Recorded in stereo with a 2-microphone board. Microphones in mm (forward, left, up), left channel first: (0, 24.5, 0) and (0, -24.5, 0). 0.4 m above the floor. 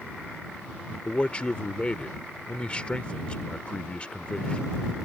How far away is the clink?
I don't hear a clink.